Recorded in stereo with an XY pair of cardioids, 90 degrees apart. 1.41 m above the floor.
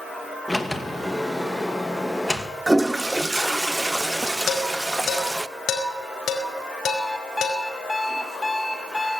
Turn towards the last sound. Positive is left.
turn(degrees=15)